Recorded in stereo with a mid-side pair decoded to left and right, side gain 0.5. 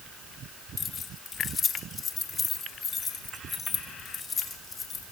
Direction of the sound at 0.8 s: 45° left.